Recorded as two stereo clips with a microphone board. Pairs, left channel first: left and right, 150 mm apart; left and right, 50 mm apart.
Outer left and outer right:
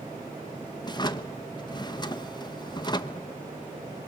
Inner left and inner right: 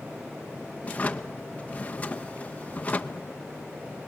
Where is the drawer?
30° left (ahead or behind), 0.8 m.